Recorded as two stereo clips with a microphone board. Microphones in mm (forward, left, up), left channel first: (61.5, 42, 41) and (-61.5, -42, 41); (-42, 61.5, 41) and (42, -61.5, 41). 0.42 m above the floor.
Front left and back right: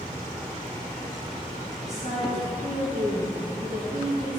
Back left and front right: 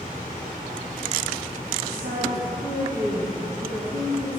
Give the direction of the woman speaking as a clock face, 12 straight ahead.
1 o'clock.